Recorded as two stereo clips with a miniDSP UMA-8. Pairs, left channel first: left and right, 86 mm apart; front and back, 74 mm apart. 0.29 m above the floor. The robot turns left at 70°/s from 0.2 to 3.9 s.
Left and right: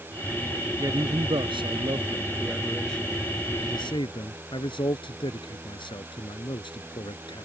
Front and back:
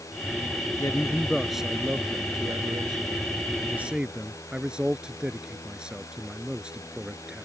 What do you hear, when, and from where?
0.8 s a man speaking: 40° right; by 7.5 s 100° left